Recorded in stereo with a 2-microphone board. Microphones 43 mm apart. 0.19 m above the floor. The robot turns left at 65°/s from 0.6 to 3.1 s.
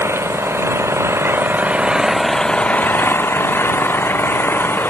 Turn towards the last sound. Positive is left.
turn(degrees=125)